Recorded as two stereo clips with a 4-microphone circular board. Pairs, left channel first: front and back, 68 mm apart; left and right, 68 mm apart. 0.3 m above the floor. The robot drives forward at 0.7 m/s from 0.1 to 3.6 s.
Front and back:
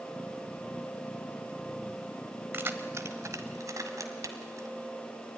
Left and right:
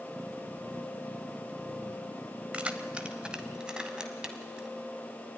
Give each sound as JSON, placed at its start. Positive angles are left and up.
{"t": 2.5, "sound": "keys jangling", "azimuth_deg": -150, "distance_m": 0.9}